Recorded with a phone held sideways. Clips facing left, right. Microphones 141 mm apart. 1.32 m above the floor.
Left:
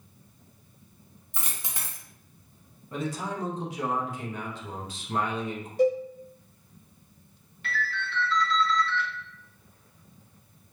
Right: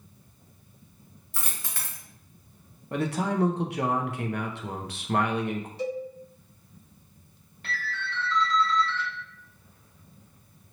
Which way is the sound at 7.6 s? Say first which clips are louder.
Left 2 dB; 40° right (ahead or behind).